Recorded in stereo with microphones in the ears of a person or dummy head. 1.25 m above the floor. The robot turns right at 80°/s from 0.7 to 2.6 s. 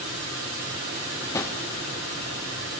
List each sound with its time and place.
1.3 s a drawer: 20° left (ahead or behind), 0.5 m; by 1.6 s 5° left (ahead or behind), 0.5 m